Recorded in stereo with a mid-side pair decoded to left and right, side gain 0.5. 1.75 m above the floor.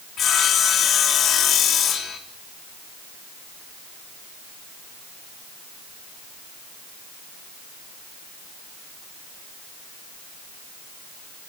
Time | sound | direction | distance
0.2 | sawing | 55° left | 3.5 m